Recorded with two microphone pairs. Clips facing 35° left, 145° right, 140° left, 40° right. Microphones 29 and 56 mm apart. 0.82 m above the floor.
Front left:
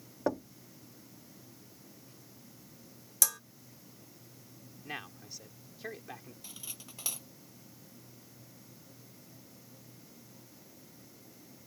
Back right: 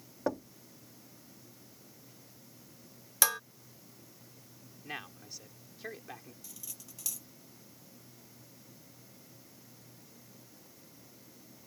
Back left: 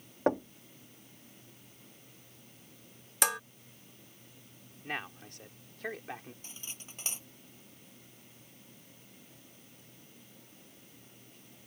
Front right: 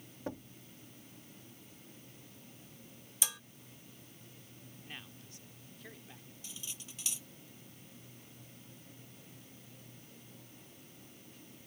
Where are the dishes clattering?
160° left.